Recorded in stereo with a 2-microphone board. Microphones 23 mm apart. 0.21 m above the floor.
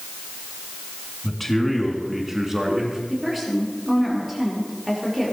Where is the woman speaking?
10° right (ahead or behind), 5 m.